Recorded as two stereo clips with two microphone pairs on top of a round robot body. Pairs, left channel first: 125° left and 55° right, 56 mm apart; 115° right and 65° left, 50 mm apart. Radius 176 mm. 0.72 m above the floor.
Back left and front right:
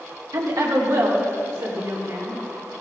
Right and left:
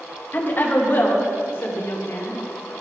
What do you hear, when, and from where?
0.3 s a woman speaking: 65° right, 1.6 m; by 2.4 s 85° right, 3 m